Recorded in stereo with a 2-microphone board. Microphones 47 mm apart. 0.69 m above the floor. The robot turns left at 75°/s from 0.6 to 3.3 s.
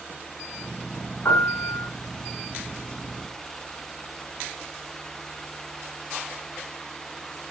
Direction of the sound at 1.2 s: 115° left.